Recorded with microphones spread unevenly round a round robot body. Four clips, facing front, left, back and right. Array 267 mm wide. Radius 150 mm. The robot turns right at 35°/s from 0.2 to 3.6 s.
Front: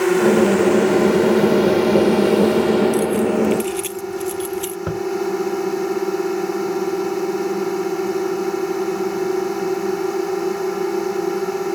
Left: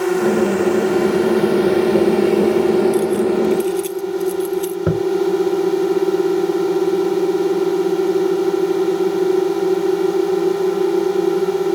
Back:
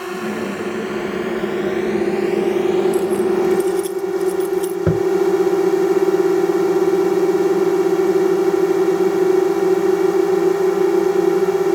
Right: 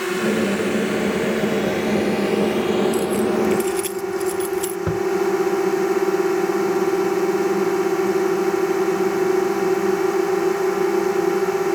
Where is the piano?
No piano in this recording.